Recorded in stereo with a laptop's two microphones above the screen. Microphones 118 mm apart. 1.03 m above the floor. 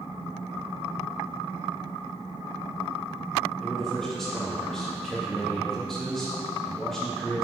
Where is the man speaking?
5° left (ahead or behind), 1.7 m.